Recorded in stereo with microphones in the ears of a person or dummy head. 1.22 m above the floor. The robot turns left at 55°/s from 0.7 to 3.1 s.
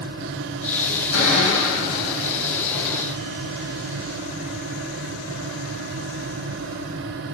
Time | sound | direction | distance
1.1 | a cupboard door | 105° left | 5 m